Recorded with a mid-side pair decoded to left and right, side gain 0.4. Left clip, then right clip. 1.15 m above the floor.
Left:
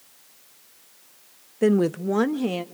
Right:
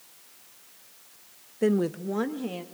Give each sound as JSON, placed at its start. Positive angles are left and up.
{"t": 1.6, "sound": "a woman speaking", "azimuth_deg": 35, "distance_m": 0.7}